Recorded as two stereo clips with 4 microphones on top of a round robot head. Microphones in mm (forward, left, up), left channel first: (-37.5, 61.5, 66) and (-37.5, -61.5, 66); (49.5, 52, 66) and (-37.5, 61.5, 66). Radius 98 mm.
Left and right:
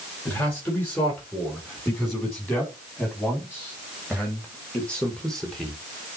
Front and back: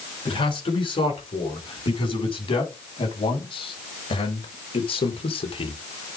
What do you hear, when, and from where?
0.2 s a man speaking: 15° left, 6.5 m; by 5.8 s straight ahead, 1.7 m